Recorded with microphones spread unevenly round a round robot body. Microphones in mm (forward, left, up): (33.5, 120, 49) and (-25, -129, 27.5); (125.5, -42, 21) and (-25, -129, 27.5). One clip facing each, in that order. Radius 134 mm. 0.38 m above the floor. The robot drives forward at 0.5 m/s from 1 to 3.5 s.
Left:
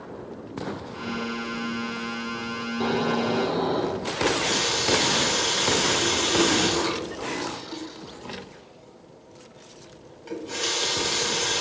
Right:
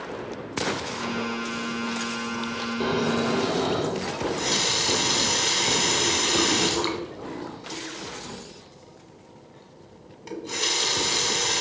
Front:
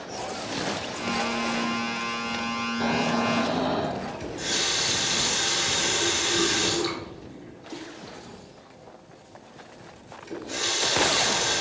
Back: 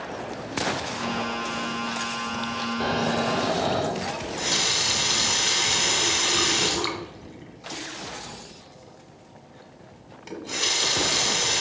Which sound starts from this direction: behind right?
Snoring, at 2.8 s.